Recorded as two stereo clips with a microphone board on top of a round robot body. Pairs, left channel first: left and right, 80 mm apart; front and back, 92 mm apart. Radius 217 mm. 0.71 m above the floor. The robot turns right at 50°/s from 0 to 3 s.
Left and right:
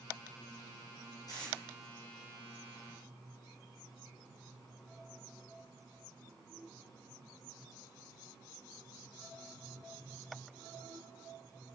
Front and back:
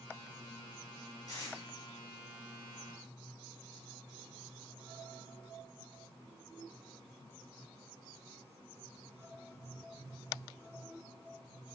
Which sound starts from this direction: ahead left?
Tape being pulled, at 1.3 s.